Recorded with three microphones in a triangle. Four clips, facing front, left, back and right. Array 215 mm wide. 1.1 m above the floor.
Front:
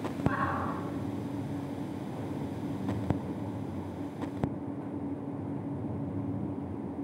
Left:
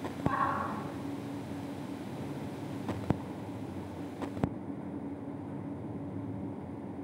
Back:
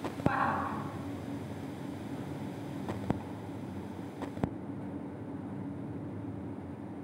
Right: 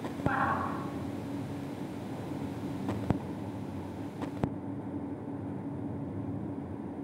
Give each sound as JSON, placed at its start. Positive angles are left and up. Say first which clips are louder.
{"t": 0.2, "sound": "a shout", "louder": "right 1 dB, back 1 dB", "azimuth_deg": -130, "distance_m": 7.0}